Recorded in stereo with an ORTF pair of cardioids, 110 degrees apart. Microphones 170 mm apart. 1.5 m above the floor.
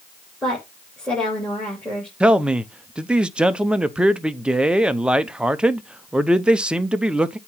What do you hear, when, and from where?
0.4 s a woman speaking: 5° left, 3.5 m
2.2 s a man speaking: 5° right, 0.7 m